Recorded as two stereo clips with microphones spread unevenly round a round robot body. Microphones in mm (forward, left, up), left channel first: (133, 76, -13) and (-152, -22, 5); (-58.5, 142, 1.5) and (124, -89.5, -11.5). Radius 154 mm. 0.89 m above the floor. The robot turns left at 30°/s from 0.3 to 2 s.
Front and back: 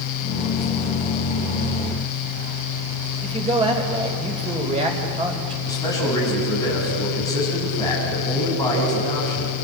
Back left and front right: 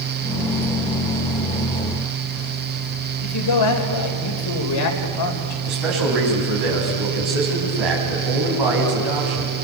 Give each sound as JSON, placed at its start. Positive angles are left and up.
{"t": 3.2, "sound": "a man speaking", "azimuth_deg": 130, "distance_m": 3.5}
{"t": 5.7, "sound": "a man speaking", "azimuth_deg": -60, "distance_m": 6.0}